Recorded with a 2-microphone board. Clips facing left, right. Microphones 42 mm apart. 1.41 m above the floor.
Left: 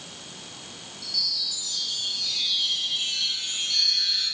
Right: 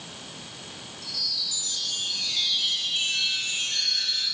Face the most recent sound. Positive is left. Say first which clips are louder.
# left 2 dB
turn(degrees=-50)  # may be behind; listen again after turning